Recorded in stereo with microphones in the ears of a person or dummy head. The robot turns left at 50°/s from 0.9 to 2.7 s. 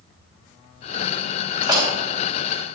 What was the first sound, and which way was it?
A door slam, 25° right (ahead or behind).